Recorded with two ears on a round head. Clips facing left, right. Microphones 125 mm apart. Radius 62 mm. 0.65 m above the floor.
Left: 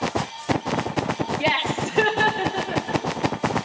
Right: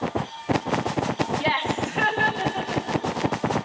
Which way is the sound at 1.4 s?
15° left (ahead or behind).